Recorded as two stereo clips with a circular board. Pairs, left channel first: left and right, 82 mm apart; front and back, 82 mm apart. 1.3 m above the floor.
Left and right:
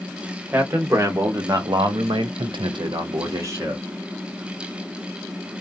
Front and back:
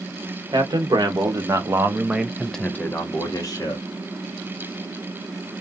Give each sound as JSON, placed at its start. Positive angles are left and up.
{"t": 0.5, "sound": "a man speaking", "azimuth_deg": -150, "distance_m": 1.1}